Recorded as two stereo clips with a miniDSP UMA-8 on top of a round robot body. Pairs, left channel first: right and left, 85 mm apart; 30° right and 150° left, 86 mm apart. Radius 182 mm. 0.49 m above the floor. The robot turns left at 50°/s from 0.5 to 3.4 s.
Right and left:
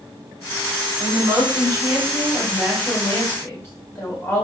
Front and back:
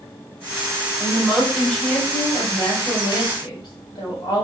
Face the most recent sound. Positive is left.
turn(degrees=-35)